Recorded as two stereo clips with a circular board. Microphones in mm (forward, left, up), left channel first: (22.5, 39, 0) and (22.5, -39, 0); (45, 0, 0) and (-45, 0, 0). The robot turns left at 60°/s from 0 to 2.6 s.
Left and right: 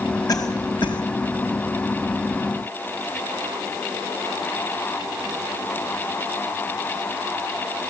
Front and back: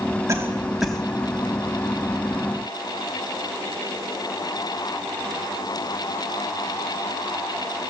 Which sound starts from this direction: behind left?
A cough, at 0.3 s.